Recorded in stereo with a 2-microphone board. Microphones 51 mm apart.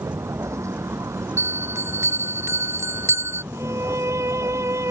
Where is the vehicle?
75° right (ahead or behind); by 4.9 s 65° right (ahead or behind).